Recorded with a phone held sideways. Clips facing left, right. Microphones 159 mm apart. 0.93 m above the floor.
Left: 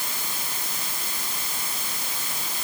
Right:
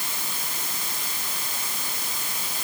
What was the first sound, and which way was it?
Only background noise.